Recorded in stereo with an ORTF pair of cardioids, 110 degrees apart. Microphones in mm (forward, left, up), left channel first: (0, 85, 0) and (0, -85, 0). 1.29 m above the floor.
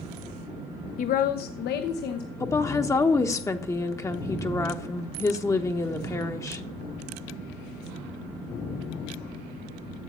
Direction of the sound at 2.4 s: 15° left.